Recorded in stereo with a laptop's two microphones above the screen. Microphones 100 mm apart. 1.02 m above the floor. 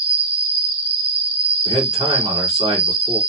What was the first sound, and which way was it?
An insect, 65° right (ahead or behind).